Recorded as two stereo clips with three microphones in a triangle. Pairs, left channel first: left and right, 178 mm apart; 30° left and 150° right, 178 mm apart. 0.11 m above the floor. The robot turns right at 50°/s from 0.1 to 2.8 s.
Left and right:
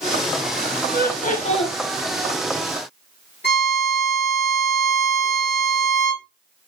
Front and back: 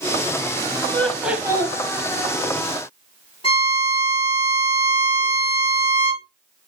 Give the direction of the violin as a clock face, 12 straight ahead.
9 o'clock.